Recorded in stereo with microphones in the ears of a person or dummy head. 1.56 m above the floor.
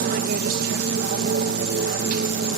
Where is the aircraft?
50° right (ahead or behind).